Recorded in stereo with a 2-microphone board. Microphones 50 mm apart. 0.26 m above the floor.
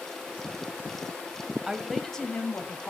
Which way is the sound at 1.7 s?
15° right (ahead or behind).